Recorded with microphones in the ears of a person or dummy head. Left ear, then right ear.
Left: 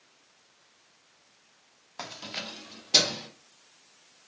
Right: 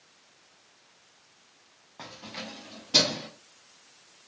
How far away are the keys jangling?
About 0.5 m.